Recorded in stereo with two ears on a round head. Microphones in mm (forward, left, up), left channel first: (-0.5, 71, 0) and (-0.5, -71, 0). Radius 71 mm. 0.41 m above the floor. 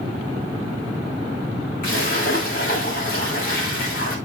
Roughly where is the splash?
Left.